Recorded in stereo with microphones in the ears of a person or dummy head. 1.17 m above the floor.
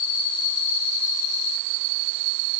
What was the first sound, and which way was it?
Only background noise.